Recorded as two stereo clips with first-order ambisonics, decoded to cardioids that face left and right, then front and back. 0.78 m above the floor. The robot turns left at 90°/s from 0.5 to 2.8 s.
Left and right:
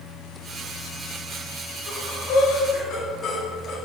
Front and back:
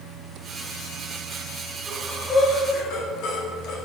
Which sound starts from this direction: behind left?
Breathing, at 1.9 s.